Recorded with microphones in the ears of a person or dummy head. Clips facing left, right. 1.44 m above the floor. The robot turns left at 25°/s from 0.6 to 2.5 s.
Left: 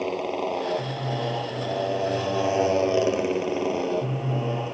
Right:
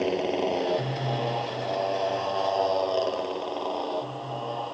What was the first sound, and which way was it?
A motorcycle, 170° right.